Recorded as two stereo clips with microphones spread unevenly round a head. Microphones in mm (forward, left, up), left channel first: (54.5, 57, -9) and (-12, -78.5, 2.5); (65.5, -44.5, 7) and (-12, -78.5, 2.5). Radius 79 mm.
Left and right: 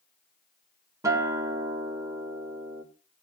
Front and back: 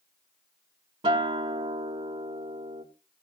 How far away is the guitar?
About 1.7 m.